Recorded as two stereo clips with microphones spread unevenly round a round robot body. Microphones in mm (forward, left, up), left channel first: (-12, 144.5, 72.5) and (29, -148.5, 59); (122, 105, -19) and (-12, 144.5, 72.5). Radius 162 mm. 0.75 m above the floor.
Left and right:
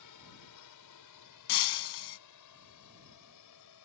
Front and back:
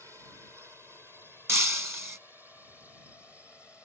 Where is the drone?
80° left; by 3.9 s 70° left.